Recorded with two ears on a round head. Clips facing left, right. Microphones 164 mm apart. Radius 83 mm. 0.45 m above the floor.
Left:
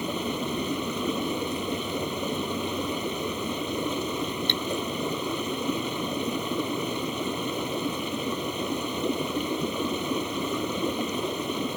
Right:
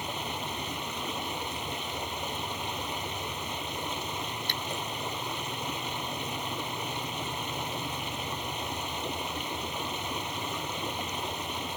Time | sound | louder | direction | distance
0.0 | running water | left 7 dB | 85° left | ?
4.5 | cutlery clinking | left 7 dB | 25° left (ahead or behind) | ?